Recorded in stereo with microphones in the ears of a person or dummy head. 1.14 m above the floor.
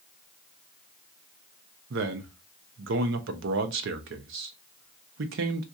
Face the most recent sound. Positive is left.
turn(degrees=-65)  # may be behind; listen again after turning